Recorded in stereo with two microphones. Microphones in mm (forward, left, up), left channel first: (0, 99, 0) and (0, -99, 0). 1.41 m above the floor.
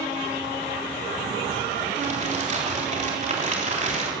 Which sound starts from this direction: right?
Crumpling, at 1.9 s.